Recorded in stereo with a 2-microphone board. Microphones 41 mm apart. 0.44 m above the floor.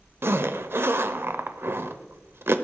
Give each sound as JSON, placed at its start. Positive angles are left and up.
{"t": 0.2, "sound": "a zipper", "side_deg": -65, "distance_m": 0.8}